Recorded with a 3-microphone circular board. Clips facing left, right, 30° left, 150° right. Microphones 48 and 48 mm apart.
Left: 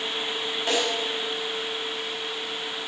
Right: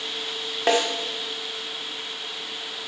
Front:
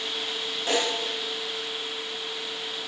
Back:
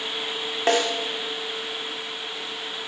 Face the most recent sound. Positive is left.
turn(degrees=-105)